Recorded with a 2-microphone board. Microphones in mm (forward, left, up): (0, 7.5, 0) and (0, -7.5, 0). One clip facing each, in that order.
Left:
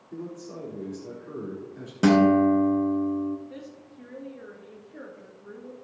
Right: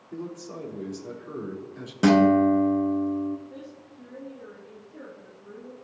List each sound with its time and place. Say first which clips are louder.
0.1 s a man speaking: right 1 dB; 25° right (ahead or behind), 4.5 m
2.0 s a guitar: even; 5° right (ahead or behind), 1.4 m
3.5 s a woman speaking: even; 60° left (ahead or behind), 2.5 m